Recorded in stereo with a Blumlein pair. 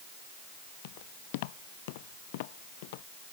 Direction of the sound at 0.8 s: 50° left.